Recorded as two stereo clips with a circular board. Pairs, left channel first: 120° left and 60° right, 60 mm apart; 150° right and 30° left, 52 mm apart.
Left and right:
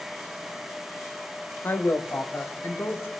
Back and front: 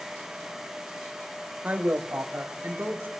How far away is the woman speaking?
About 1.1 m.